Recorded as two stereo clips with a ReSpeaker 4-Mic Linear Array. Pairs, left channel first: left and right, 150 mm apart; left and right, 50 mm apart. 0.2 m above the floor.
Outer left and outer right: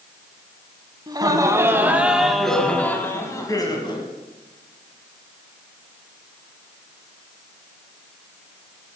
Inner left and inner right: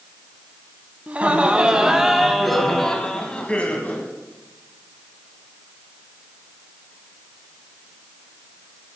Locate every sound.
1.1 s laughter: 30° right (ahead or behind), 1.5 m; by 4.1 s 35° left (ahead or behind), 1.7 m